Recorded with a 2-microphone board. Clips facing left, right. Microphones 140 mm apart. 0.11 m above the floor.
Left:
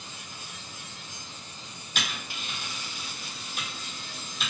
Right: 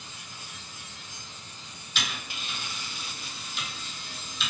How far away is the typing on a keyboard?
About 0.8 m.